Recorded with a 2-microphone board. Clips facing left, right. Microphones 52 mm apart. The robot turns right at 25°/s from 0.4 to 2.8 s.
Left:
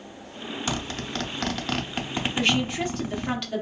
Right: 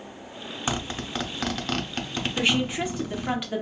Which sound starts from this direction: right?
A zipper, at 0.7 s.